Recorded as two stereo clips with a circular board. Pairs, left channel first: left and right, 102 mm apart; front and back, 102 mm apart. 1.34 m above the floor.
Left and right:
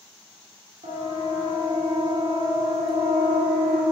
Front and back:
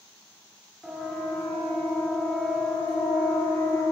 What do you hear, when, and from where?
0.8 s a siren: 95° right, 6.5 m; by 3.8 s 70° right, 7 m